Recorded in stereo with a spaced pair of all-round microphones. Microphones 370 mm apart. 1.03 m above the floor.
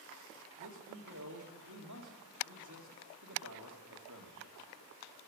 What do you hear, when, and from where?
0.6 s a man speaking: 55° right (ahead or behind), 2.5 m